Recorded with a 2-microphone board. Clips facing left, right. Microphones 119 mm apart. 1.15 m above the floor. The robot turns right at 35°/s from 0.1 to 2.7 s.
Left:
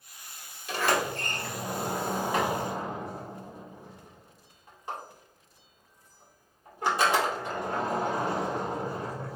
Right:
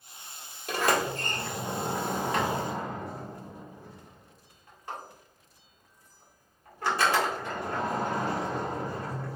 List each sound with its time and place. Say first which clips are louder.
0.7 s a sliding door: right 1 dB; 50° right (ahead or behind), 1.5 m; by 9.4 s 20° left (ahead or behind), 1.5 m